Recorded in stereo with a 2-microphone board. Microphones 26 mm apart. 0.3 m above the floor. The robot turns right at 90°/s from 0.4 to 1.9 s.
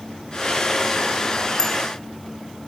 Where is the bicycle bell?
20° left (ahead or behind), 3 m; by 1.8 s 5° left (ahead or behind), 3 m.